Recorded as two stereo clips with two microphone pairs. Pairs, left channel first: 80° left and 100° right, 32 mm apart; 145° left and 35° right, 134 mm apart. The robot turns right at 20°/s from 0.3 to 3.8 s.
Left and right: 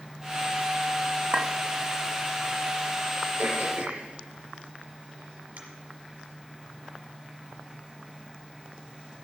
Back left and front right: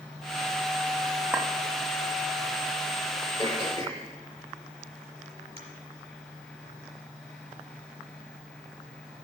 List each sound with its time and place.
1.3 s a clink: 120° right, 0.7 m; by 1.5 s 115° right, 0.7 m
3.4 s throat clearing: 90° right, 4 m; by 5.6 s 80° right, 4 m